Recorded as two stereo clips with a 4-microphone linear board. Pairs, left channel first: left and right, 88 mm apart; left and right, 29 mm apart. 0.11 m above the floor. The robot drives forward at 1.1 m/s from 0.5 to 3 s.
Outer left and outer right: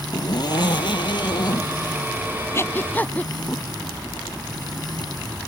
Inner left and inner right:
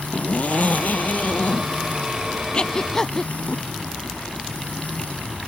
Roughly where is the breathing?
Left.